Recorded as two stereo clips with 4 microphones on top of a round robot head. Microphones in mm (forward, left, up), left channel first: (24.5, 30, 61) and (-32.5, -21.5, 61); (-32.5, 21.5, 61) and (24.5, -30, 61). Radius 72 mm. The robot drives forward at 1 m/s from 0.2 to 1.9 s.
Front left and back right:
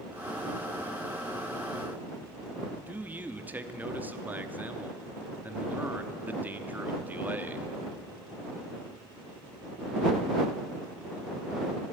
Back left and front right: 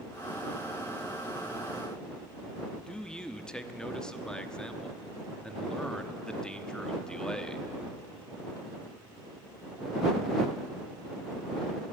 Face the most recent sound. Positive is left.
turn(degrees=-160)